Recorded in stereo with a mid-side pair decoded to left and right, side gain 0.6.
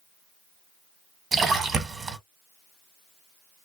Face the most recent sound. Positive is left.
turn(degrees=-30)